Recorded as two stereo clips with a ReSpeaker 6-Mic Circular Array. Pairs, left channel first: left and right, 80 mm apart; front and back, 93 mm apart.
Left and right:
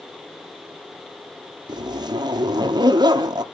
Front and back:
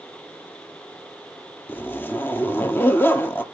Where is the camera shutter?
No camera shutter in this recording.